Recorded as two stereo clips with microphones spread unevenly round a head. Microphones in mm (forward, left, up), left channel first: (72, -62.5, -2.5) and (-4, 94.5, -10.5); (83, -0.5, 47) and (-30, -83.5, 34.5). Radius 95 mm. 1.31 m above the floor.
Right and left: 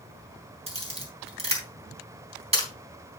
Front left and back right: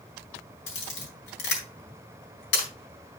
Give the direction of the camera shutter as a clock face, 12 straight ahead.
10 o'clock.